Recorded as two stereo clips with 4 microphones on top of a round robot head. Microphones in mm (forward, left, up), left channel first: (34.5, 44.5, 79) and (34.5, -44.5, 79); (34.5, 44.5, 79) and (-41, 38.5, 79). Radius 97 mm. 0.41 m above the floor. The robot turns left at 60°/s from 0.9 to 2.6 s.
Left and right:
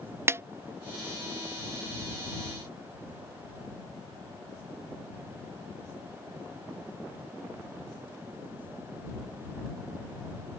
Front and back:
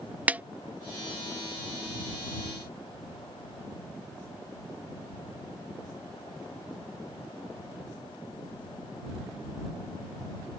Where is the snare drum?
125° right.